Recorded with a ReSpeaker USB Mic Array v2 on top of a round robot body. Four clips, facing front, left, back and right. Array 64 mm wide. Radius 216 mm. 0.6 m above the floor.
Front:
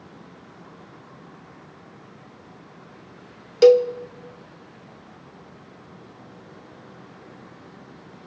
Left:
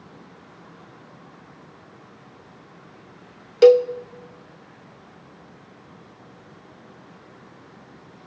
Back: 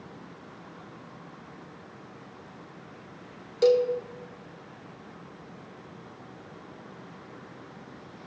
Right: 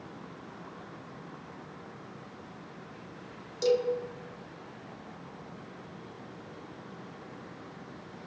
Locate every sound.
3.6 s a cowbell: 70° left, 0.9 m